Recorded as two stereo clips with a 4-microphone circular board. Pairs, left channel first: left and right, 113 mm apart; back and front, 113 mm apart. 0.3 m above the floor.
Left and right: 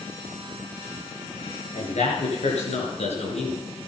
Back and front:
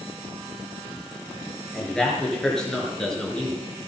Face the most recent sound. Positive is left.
turn(degrees=95)